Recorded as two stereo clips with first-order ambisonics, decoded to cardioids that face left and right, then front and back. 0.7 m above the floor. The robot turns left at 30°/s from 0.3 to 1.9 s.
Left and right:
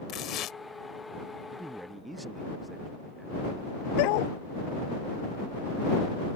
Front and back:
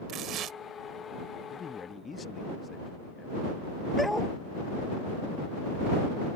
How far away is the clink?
No clink in this recording.